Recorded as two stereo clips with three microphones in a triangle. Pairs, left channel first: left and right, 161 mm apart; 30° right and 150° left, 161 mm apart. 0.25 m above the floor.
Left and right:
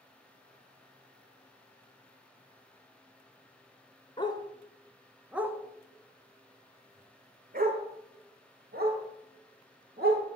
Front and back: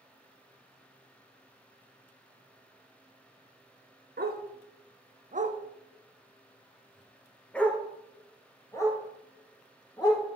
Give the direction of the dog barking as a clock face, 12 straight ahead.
7 o'clock.